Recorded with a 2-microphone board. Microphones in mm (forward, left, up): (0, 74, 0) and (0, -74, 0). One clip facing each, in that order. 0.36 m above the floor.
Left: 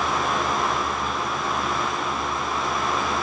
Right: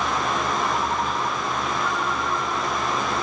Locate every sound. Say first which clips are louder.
0.7 s a ringtone: right 2 dB; 80° right